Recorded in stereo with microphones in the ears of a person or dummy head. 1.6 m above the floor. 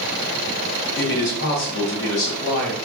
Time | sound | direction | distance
1.0 | a man speaking | 60° left (ahead or behind) | 0.9 m